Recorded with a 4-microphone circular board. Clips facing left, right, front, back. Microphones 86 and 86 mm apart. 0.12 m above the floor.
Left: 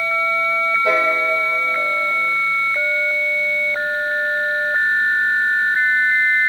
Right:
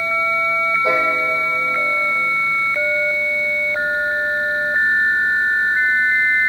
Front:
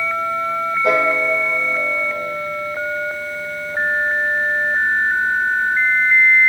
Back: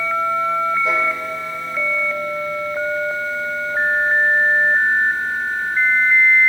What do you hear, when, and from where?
0.8 s a piano: 20° right, 3 m